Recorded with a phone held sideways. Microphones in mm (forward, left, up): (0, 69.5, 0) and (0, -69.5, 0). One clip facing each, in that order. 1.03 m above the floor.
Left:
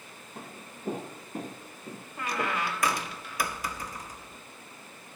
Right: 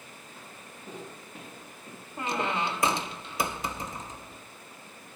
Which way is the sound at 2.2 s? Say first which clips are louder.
Right 2 dB; 25° right (ahead or behind).